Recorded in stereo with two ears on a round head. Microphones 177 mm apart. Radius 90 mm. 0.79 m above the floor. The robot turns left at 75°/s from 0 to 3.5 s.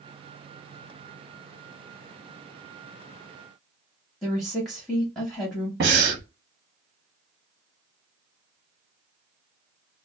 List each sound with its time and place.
4.2 s a woman speaking: centre (ahead or behind), 0.9 m
5.8 s breathing: 55° right (ahead or behind), 1.5 m